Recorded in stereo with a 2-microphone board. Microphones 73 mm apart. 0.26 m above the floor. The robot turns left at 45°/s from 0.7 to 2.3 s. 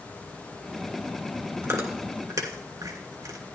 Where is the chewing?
45° right (ahead or behind), 2.5 m; by 3.4 s 70° right (ahead or behind), 2.5 m.